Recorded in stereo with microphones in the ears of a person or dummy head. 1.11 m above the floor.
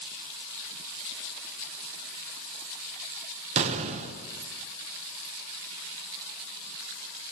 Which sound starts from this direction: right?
An explosion, at 3.6 s.